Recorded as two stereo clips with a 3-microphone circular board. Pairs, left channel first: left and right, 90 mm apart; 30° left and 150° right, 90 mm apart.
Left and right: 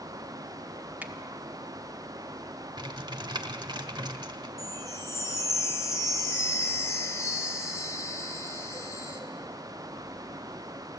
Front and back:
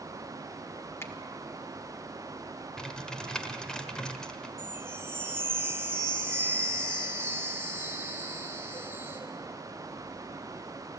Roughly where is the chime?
Behind left.